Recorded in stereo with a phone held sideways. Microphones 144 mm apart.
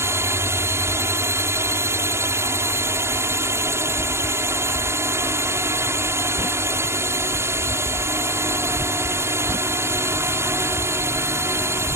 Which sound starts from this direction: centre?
A drone, at 0.0 s.